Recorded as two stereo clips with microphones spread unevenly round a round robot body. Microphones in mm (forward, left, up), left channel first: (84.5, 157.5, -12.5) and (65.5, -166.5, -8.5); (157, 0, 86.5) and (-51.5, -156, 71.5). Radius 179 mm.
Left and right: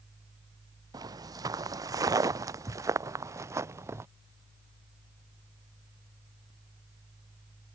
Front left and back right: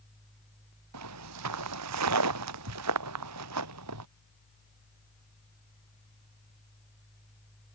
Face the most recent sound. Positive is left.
turn(degrees=-175)